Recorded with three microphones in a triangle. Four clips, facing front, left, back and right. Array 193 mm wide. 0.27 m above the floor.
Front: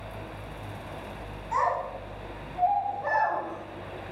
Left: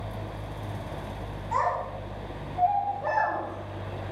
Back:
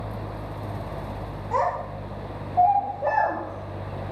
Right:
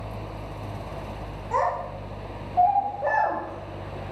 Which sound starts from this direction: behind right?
A child speaking, at 1.5 s.